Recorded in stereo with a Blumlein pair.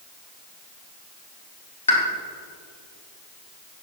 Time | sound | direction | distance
1.9 | a pop | 70° left | 3 m